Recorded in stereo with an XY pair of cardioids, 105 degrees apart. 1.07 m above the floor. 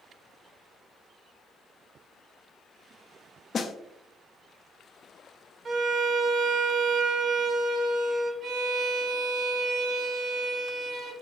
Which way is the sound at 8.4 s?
70° right.